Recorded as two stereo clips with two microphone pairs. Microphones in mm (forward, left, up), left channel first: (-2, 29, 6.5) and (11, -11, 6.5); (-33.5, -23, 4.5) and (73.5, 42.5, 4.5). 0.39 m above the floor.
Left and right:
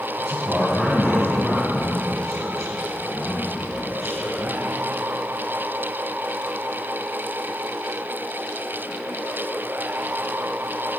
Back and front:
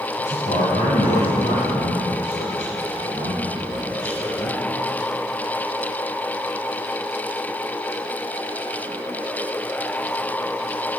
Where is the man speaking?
145° right, 2.5 m.